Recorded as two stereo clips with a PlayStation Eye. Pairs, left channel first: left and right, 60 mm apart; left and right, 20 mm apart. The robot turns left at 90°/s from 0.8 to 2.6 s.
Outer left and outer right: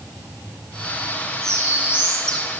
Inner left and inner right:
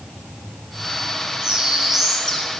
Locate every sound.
1.4 s a bird: 110° right, 2.5 m; by 2.5 s 155° left, 2.5 m